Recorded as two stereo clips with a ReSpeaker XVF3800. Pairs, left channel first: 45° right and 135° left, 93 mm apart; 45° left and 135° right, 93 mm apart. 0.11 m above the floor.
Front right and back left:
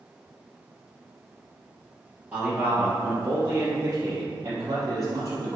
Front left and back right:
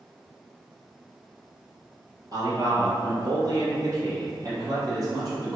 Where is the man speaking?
150° right, 3 m; by 5.6 s straight behind, 4 m.